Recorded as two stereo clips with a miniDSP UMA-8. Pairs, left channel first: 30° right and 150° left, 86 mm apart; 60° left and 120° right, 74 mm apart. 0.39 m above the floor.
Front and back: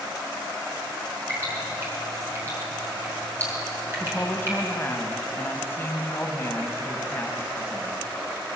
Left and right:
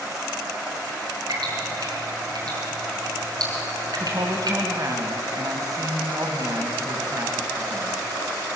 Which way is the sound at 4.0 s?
90° right.